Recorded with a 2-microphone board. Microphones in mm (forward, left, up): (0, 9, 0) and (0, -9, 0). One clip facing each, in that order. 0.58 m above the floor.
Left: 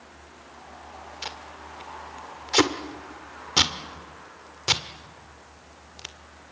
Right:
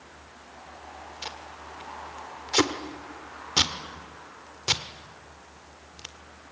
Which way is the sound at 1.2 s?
15° left (ahead or behind).